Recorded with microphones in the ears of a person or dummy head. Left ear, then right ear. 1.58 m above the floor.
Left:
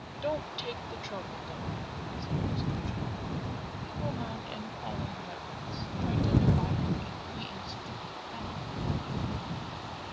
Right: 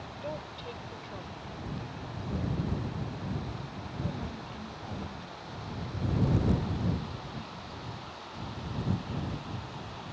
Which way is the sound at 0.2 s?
25° left (ahead or behind).